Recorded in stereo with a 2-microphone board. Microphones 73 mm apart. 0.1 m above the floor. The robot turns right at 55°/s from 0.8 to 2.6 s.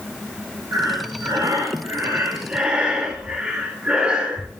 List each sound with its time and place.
0.7 s breathing: 115° right, 1.5 m; by 4.5 s 15° right, 1.5 m